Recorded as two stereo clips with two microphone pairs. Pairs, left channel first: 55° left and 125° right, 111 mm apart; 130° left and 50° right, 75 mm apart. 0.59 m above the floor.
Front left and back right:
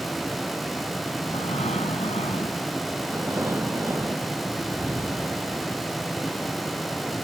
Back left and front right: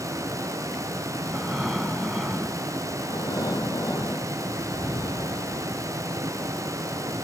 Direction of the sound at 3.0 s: 170° left.